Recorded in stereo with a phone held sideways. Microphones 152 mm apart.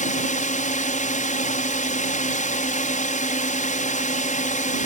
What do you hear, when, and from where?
0.0 s a drone: 60° left (ahead or behind)